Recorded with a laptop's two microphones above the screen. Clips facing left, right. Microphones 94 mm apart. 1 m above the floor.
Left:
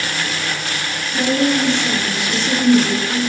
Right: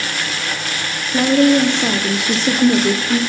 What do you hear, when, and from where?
1.1 s a woman speaking: 55° right (ahead or behind), 1.8 m